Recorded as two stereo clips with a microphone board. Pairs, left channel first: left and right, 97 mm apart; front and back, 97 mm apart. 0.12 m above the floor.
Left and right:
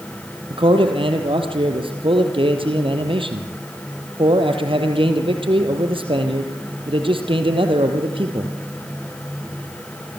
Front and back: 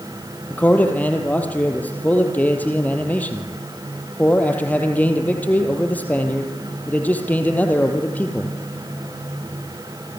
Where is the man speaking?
75° right, 4 m.